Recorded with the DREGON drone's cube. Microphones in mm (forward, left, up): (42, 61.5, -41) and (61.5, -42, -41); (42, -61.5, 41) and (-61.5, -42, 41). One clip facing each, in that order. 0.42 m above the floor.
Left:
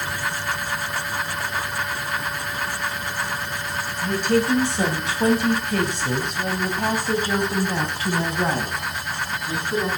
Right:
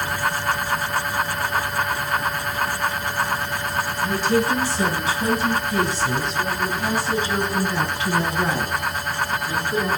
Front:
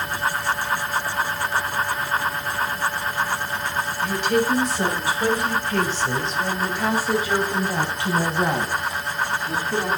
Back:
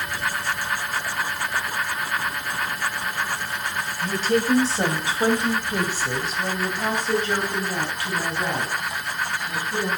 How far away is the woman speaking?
About 3 m.